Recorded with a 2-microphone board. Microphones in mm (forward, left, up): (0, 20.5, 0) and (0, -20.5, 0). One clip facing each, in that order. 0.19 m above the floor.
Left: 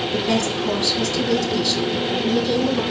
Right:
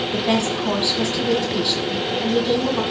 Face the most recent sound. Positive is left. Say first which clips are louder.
# right 1 dB
turn(degrees=-25)  # may be behind; listen again after turning